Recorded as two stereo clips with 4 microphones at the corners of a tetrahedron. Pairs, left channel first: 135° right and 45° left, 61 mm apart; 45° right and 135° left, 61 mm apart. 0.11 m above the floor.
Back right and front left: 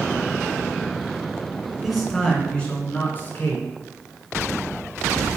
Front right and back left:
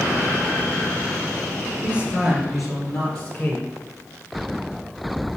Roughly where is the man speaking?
Behind left.